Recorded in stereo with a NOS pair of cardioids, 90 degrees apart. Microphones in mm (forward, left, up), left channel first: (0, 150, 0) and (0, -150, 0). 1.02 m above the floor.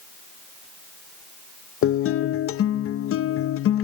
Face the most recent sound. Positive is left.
turn(degrees=45)